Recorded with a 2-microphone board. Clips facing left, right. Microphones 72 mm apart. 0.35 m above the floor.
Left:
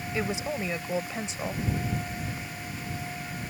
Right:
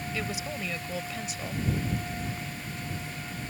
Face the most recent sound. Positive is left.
turn(degrees=30)  # may be behind; listen again after turning